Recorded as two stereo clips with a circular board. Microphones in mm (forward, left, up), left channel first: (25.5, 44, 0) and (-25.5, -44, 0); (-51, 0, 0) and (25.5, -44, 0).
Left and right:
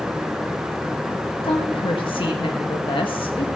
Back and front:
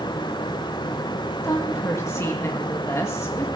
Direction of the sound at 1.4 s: 95° left.